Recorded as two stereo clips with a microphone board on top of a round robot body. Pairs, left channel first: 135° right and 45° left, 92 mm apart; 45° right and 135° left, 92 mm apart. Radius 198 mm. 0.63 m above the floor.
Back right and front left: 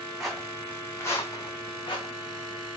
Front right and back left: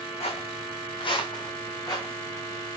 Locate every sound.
0.2 s footsteps: 45° right, 1.9 m; by 2.7 s 110° right, 3 m